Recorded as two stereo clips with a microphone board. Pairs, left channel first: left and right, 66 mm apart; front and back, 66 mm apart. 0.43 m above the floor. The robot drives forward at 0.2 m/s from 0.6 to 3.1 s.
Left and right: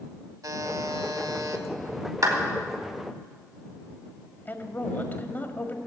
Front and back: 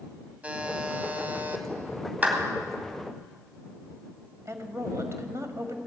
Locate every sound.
0.4 s a buzzer: 110° right, 1.4 m; by 1.6 s 120° right, 1.5 m
2.2 s a clap: 115° right, 2.5 m
4.5 s a woman speaking: 145° left, 1.8 m